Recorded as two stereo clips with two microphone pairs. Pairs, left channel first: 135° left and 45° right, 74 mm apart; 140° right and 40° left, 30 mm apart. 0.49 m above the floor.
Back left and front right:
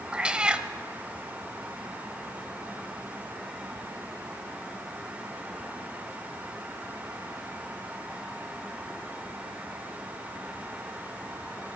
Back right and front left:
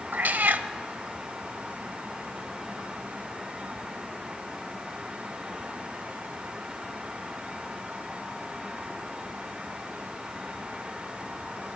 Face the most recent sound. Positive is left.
turn(degrees=35)